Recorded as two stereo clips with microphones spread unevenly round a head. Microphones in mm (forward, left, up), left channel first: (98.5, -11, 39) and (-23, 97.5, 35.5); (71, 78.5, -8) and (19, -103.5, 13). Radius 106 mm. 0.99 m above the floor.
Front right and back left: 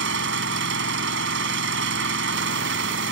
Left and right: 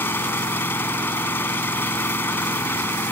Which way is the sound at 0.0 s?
155° left.